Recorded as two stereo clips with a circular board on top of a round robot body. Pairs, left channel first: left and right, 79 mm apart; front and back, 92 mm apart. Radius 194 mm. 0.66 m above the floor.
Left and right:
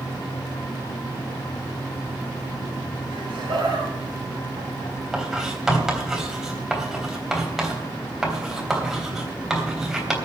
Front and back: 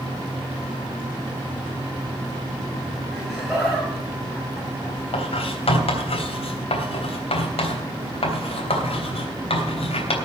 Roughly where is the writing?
Ahead.